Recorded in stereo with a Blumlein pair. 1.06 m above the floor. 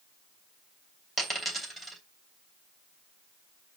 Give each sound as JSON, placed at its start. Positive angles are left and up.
{"t": 1.2, "sound": "a dropped coin", "azimuth_deg": 5, "distance_m": 2.5}